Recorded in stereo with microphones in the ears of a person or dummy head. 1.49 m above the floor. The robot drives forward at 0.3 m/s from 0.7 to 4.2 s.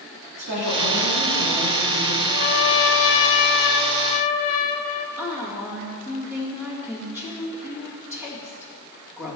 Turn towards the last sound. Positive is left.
turn(degrees=-5)  # may be behind; listen again after turning